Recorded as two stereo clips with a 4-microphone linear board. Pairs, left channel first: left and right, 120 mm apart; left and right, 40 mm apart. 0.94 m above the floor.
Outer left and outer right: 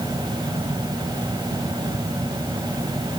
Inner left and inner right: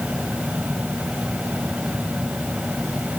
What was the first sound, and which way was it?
Only background noise.